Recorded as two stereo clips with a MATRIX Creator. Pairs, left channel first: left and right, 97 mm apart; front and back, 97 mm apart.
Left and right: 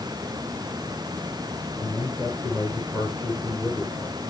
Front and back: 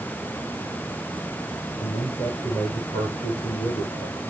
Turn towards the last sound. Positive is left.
turn(degrees=15)